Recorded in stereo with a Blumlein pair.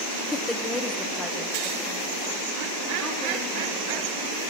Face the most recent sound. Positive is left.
turn(degrees=0)